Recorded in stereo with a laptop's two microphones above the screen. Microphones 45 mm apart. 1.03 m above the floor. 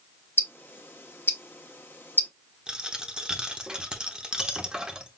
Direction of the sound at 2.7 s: 20° right (ahead or behind).